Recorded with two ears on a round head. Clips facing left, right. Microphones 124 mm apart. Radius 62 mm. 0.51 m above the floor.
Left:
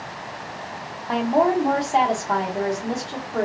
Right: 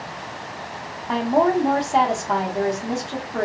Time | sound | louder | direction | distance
1.1 | a woman speaking | right 1 dB | centre (ahead or behind) | 0.7 m